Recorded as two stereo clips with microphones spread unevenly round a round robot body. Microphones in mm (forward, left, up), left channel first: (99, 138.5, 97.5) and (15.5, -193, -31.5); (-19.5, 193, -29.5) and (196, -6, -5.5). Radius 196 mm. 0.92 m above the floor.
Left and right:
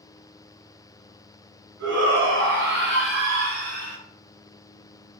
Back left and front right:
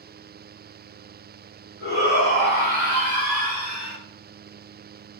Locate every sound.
1.8 s a shout: 160° right, 5 m; by 4.0 s 170° right, 3.5 m